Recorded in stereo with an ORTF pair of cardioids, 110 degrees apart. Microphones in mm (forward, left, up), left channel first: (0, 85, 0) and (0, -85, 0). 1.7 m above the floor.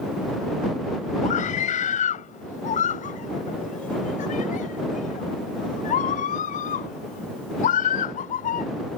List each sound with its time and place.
1.2 s a scream: 50° left; by 8.7 s 55° left